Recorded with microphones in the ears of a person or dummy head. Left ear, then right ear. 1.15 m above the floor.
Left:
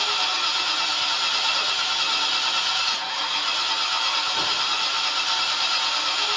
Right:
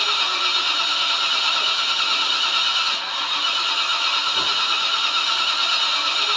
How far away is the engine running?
About 1.0 m.